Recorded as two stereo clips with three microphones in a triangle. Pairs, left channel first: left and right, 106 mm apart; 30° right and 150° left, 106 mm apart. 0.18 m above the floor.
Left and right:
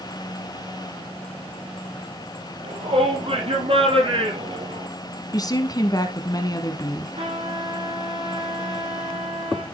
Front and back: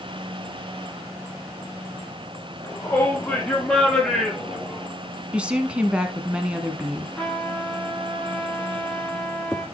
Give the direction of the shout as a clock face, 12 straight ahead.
3 o'clock.